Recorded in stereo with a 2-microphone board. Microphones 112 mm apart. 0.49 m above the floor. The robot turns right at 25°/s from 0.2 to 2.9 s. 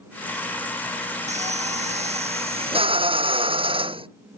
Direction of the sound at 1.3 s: 95° right.